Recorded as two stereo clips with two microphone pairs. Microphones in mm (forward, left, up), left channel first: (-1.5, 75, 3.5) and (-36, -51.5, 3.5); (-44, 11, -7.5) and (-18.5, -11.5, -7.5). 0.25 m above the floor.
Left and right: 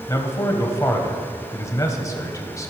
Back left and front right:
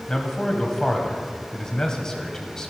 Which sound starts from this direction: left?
A man speaking, at 0.1 s.